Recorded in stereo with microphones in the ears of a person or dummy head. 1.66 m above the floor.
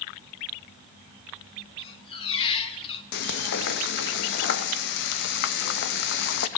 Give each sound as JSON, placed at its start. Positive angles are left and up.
{"t": 1.8, "sound": "a squeak", "side_deg": 30, "distance_m": 1.5}
{"t": 3.1, "sound": "frying", "side_deg": 55, "distance_m": 1.4}